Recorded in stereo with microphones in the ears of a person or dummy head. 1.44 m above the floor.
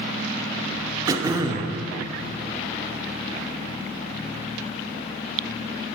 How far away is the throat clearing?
About 0.7 m.